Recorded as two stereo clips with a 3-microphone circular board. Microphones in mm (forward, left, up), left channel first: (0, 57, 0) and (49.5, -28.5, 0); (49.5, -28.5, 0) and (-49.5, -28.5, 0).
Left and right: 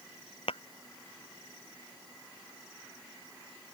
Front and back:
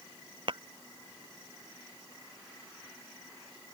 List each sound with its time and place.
0.5 s tapping: 145° left